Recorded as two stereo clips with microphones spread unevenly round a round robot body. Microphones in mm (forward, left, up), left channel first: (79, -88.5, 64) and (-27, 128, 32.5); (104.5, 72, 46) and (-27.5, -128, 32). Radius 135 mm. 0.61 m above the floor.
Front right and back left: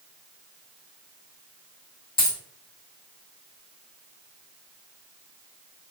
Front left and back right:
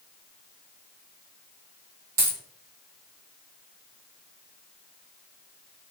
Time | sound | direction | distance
2.2 | a dropped coin | 115° right | 1.6 m